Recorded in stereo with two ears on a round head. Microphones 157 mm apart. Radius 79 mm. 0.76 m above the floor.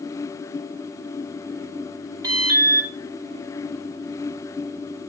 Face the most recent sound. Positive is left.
turn(degrees=-20)  # may be behind; listen again after turning